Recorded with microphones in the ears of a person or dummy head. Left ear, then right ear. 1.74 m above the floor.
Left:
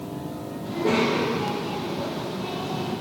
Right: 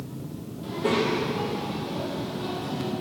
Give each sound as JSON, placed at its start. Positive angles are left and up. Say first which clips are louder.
{"t": 0.6, "sound": "a child speaking", "louder": "left 2 dB", "side_deg": -50, "distance_m": 1.0}